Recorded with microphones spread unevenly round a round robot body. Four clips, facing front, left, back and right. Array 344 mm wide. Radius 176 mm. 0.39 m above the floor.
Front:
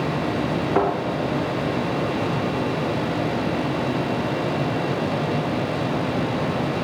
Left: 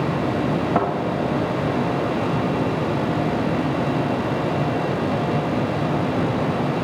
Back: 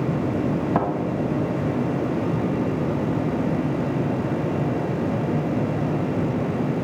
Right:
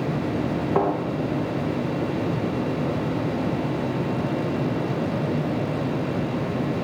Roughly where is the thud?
Behind left.